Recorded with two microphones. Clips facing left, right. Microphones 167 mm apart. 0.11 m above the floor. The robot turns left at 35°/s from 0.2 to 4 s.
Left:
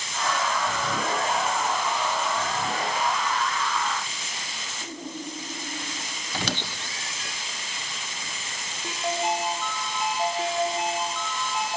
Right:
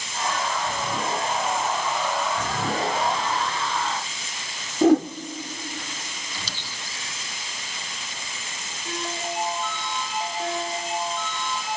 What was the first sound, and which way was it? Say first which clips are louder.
A whoosh: right 24 dB; 75° right (ahead or behind).